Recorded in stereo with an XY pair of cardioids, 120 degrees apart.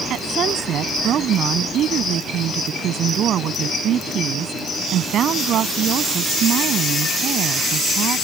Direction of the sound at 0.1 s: 60° right.